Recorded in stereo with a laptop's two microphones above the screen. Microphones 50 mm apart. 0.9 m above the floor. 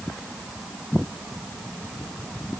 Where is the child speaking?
No child speaking in this recording.